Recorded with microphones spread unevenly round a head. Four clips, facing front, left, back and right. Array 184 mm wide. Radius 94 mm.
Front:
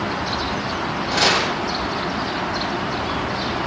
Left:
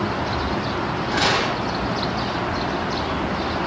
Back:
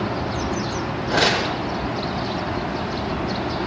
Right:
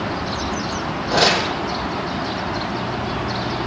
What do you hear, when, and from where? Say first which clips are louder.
1.1 s tearing paper: right 4 dB, even; 115° right, 5 m